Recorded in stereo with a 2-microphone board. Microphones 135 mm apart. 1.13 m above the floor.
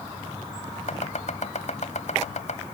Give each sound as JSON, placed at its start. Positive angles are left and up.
{"t": 0.9, "sound": "chopping", "side_deg": 65}